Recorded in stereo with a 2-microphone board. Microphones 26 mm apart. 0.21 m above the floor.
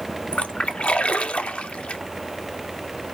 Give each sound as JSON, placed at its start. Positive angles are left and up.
{"t": 0.3, "sound": "a splash", "side_deg": 55, "distance_m": 0.7}